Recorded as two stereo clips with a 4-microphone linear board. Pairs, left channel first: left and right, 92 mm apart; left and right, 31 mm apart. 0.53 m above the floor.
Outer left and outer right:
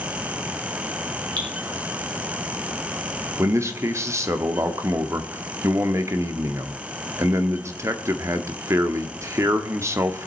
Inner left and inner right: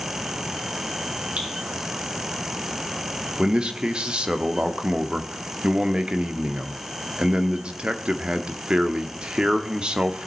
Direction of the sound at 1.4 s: 55° right (ahead or behind).